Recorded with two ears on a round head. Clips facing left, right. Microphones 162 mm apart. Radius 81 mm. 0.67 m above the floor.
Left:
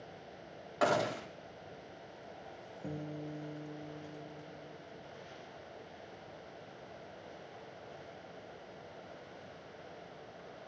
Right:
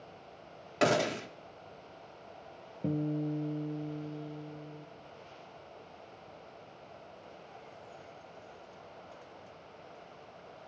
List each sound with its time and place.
0.8 s a gunshot: 30° right (ahead or behind), 1.5 m
2.8 s a guitar: 45° right (ahead or behind), 2.5 m